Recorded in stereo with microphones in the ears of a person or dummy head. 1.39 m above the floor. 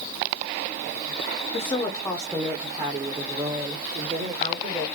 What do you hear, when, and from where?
1.5 s a woman speaking: 35° left (ahead or behind), 0.7 m; by 4.8 s 40° right (ahead or behind), 2 m